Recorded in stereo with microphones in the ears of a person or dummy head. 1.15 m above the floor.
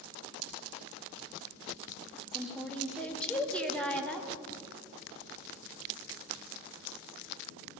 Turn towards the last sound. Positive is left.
turn(degrees=5)  # may be behind; listen again after turning